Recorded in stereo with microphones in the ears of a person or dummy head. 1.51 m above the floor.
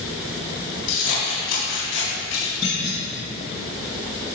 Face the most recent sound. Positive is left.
turn(degrees=35)  # may be behind; listen again after turning